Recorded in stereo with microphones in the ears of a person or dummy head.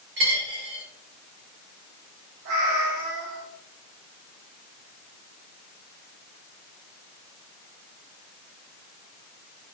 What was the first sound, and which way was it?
A dropped coin, 50° right (ahead or behind).